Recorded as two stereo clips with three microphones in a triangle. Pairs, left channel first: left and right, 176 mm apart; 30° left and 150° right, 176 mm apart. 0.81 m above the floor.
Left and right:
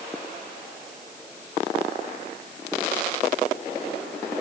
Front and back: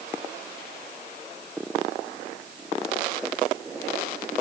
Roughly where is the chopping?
I don't hear chopping.